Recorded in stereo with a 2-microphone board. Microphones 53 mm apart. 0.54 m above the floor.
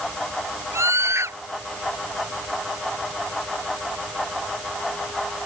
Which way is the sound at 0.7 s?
60° right (ahead or behind).